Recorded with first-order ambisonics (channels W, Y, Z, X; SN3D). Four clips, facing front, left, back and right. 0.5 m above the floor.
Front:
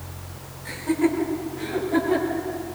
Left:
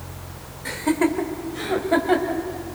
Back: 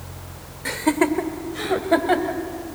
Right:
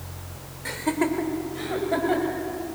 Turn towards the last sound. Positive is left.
turn(degrees=155)